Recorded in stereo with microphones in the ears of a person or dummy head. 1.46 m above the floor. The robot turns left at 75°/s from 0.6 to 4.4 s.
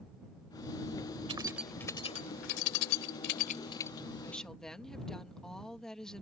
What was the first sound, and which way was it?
Keys jangling, 30° right (ahead or behind).